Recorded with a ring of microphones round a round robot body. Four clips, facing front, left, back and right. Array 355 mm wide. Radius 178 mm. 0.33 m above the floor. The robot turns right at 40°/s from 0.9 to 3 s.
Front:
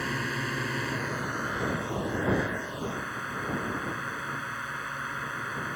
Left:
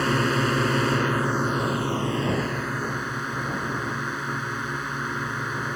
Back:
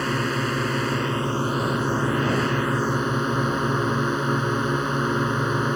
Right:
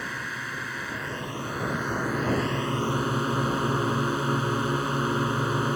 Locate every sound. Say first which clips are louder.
0.0 s a drone: left 11 dB, back 8 dB; 120° left; by 5.8 s 155° right